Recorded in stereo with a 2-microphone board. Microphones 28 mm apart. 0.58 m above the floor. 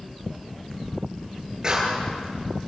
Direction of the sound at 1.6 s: 30° right (ahead or behind).